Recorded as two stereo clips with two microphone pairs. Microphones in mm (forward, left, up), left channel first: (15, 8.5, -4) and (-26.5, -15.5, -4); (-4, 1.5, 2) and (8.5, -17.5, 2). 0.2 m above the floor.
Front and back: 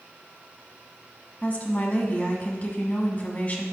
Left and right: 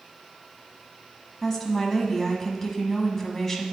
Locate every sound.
1.4 s a woman speaking: 55° left, 1.2 m